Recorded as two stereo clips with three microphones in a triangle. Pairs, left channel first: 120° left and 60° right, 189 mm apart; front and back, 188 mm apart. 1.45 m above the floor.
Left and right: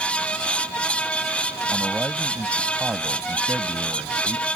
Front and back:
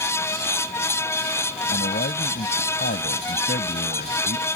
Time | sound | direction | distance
1.7 | a man speaking | 20° left | ?